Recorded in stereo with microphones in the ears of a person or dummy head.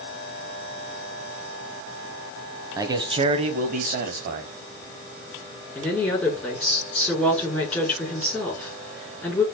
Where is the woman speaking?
5° left (ahead or behind), 4 m.